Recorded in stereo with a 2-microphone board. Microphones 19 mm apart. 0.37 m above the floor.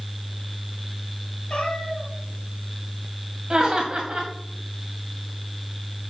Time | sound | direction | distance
1.5 | a cat meowing | 65° left (ahead or behind) | 2.5 m
3.5 | laughter | 45° right (ahead or behind) | 2 m